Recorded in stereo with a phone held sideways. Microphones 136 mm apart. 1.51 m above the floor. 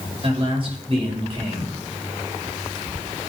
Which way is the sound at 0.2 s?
40° right (ahead or behind).